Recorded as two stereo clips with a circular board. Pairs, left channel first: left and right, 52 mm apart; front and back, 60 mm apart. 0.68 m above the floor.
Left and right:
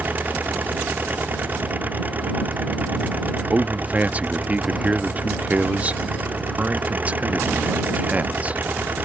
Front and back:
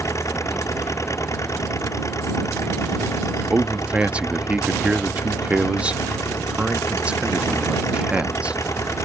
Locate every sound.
0.0 s an engine running: 35° right
3.5 s a man speaking: 125° right